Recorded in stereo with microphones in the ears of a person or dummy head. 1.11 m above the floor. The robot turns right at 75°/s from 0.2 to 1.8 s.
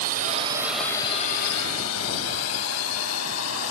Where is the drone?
55° right (ahead or behind); by 3.7 s 75° left (ahead or behind).